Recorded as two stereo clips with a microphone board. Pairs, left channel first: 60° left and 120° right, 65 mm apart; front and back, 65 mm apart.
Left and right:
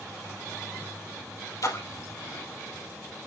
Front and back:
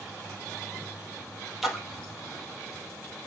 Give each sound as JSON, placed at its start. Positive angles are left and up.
{"t": 1.6, "sound": "a splash", "azimuth_deg": 95, "distance_m": 2.0}